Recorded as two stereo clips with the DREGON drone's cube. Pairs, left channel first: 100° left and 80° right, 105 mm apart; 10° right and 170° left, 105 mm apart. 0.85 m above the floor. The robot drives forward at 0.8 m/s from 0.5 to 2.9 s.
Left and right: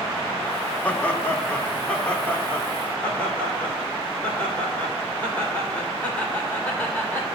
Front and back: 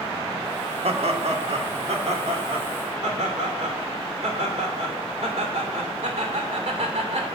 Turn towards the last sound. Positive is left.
turn(degrees=175)